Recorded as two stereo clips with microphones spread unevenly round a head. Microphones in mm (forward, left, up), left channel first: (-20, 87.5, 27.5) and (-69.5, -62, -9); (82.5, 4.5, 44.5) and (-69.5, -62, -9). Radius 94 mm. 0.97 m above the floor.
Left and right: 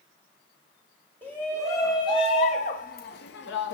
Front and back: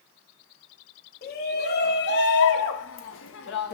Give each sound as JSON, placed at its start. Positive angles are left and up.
{"t": 1.2, "sound": "a shout", "azimuth_deg": -15, "distance_m": 2.5}